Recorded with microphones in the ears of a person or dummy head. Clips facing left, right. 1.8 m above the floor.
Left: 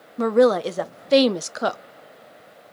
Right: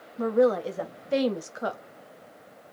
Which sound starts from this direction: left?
A woman speaking, at 0.2 s.